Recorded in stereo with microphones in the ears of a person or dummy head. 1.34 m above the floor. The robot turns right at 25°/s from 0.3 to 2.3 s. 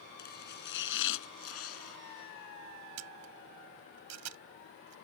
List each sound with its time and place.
0.2 s chopping: 55° left; by 2.0 s 95° left
3.0 s a camera shutter: 90° right